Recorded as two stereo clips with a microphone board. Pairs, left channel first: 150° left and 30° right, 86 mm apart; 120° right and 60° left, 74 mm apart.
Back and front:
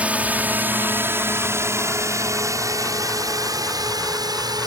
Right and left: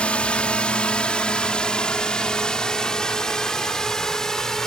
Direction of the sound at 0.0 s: 75° right.